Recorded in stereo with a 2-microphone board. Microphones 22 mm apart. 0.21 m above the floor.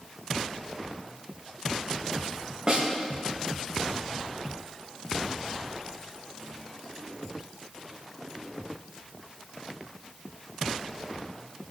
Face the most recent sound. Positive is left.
turn(degrees=-40)  # may be behind; listen again after turning